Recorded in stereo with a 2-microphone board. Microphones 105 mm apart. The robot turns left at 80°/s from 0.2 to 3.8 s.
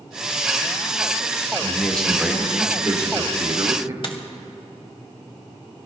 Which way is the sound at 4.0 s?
50° left (ahead or behind).